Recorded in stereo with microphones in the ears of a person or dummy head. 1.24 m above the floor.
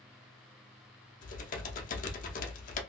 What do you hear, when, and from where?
1.2 s typing on a keyboard: 40° left (ahead or behind), 0.6 m